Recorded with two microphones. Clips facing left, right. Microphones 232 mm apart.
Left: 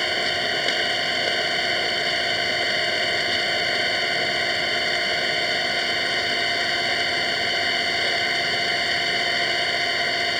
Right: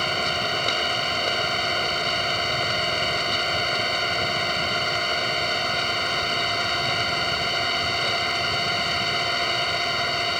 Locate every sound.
0.0 s an engine running: 10° left (ahead or behind)